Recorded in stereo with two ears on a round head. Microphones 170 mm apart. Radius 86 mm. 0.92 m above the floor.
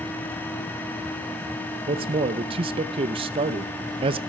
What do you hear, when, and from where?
1.9 s a man speaking: 30° right (ahead or behind), 0.6 m